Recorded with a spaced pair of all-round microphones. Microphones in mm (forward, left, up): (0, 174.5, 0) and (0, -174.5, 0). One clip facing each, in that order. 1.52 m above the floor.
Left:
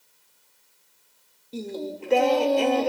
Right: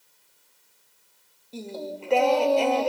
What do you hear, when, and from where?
1.5 s singing: 25° left (ahead or behind), 0.8 m